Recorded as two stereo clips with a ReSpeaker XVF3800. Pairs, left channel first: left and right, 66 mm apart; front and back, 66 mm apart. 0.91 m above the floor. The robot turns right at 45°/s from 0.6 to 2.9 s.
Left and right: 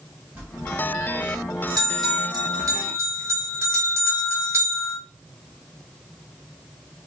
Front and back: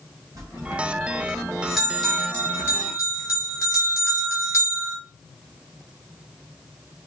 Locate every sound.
0.3 s a bell: 150° right, 3 m; by 5.0 s 45° right, 3 m